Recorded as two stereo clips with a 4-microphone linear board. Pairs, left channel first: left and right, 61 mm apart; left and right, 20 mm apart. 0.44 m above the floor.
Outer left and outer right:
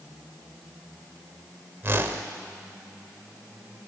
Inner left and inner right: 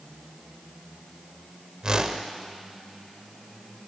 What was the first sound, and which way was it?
A whoosh, 35° right (ahead or behind).